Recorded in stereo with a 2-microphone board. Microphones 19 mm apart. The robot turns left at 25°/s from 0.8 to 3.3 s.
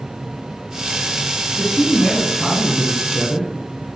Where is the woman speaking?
15° left (ahead or behind), 1.4 m; by 3.5 s centre (ahead or behind), 1.4 m.